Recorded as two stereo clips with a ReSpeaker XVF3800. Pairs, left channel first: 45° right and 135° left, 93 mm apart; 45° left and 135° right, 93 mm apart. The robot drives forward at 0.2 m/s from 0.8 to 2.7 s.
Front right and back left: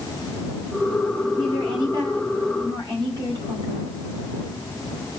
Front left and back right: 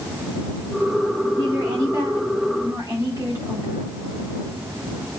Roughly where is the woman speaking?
Behind.